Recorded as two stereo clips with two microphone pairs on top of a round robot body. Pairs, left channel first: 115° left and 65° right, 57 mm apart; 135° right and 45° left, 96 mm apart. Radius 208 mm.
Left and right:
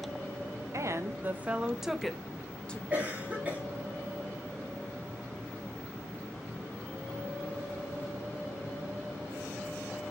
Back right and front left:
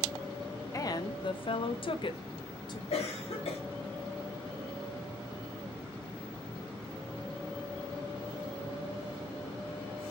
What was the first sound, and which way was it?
A woman speaking, 80° right.